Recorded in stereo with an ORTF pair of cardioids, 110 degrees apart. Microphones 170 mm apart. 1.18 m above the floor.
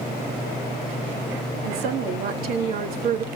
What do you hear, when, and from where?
1.6 s a woman speaking: 65° right, 2.5 m; by 3.2 s 50° right, 2 m